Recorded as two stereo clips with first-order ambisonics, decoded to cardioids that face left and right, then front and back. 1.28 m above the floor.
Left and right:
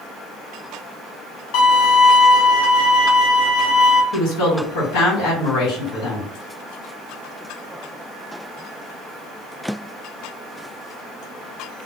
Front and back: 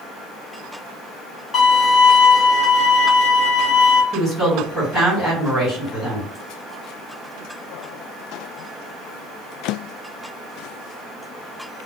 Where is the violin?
75° left, 1.1 m.